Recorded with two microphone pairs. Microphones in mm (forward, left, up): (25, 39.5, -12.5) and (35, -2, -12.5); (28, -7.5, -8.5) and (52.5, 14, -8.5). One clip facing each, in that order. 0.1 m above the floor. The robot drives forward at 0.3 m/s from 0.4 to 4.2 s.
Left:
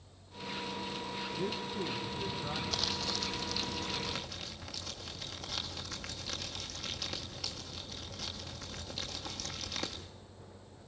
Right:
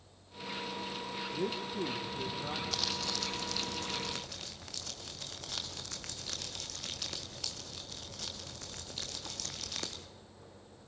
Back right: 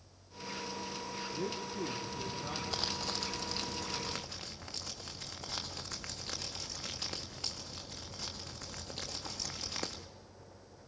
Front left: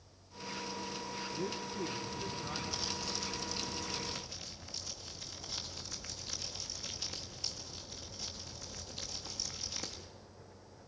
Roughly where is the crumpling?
Behind.